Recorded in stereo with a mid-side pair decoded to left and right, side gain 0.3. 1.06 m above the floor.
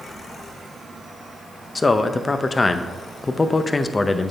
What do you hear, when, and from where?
1.8 s a man speaking: 35° left, 0.6 m